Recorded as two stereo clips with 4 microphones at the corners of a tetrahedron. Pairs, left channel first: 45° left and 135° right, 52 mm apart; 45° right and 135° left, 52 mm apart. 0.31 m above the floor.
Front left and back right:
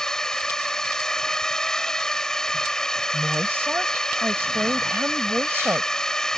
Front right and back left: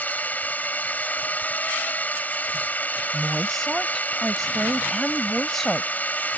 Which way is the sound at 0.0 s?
25° right.